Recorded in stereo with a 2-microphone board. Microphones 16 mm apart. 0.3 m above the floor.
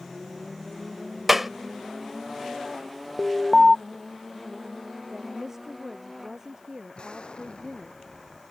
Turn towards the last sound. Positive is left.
turn(degrees=85)